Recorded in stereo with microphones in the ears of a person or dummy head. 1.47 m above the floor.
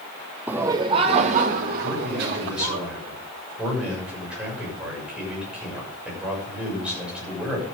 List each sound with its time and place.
0.5 s laughter: 10° right (ahead or behind), 0.8 m; by 2.8 s 60° right (ahead or behind), 2 m
1.8 s a man speaking: 5° right (ahead or behind), 6.5 m